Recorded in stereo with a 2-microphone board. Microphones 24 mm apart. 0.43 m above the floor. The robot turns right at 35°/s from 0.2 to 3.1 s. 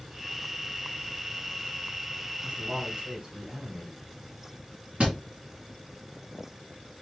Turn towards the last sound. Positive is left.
turn(degrees=-80)